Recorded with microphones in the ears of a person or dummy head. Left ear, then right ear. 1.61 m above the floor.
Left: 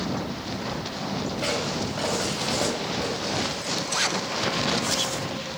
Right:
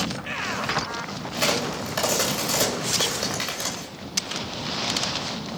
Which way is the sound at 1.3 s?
65° right (ahead or behind).